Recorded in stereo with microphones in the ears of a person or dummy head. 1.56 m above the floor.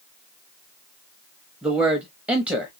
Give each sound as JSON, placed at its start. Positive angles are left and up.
{"t": 1.6, "sound": "a man speaking", "side_deg": -5, "distance_m": 0.6}